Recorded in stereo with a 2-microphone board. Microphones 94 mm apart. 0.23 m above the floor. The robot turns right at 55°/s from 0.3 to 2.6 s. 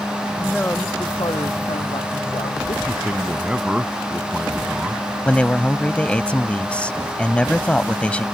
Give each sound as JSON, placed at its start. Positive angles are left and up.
{"t": 0.4, "sound": "a woman speaking", "azimuth_deg": 0}
{"t": 2.9, "sound": "a man speaking", "side_deg": -10}
{"t": 5.2, "sound": "a man speaking", "side_deg": 15}